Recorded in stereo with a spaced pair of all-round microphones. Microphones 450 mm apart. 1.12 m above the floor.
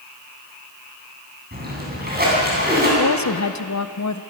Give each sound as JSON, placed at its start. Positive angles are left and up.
{"t": 1.5, "sound": "a splash", "side_deg": -20, "distance_m": 8.0}
{"t": 3.0, "sound": "a woman speaking", "side_deg": 40, "distance_m": 0.8}